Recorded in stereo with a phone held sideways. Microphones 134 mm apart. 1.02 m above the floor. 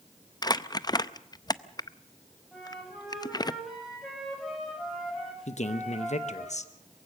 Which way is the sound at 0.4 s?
30° left (ahead or behind).